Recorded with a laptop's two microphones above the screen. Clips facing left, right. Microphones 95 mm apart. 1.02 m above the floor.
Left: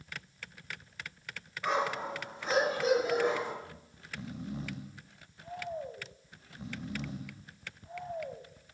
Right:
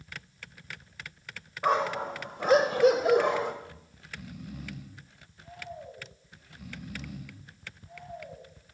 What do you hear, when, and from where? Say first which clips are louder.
1.6 s a dog barking: right 5 dB; 45° right (ahead or behind), 1.7 m; by 3.5 s 65° right (ahead or behind), 1.5 m
3.6 s snoring: right 1 dB; 25° left (ahead or behind), 0.9 m